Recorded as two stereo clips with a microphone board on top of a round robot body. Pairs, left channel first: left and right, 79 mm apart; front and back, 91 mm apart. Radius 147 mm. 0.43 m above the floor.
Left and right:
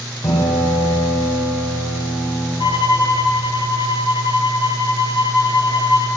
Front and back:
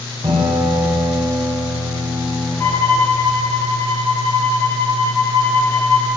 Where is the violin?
65° left, 1.5 m.